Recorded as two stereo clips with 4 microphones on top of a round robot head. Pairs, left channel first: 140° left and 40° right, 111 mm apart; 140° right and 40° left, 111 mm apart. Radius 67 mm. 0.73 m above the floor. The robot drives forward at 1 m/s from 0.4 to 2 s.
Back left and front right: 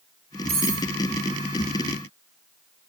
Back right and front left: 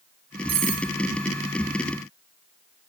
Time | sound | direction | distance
0.5 | cutlery clinking | straight ahead | 4 m